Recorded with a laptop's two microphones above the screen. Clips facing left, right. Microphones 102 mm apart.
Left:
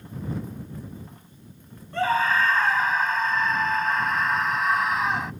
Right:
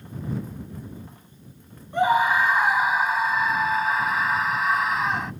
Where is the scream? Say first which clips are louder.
Right 3 dB; 15° right (ahead or behind); by 5.3 s centre (ahead or behind).